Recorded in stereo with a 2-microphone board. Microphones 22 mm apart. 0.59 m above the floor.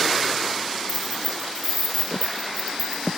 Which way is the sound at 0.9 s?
85° right.